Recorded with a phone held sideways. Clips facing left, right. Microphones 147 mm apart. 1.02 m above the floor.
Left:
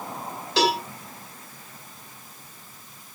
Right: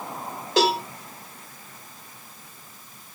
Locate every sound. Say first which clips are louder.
0.6 s a cowbell: right 2 dB; 50° right (ahead or behind), 1.5 m